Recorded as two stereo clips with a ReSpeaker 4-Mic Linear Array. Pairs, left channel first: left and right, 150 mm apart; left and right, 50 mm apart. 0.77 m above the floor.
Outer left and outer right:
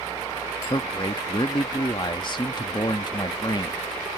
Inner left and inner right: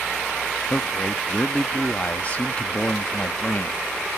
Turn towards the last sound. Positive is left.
turn(degrees=30)  # may be behind; listen again after turning